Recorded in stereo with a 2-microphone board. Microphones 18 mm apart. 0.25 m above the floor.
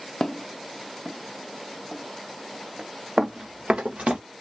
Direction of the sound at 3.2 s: 50° right (ahead or behind).